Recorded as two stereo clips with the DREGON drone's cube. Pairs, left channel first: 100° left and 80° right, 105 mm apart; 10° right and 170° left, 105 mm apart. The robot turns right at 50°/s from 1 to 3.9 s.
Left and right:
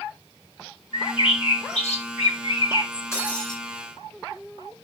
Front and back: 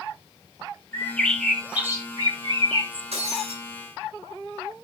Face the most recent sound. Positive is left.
turn(degrees=-155)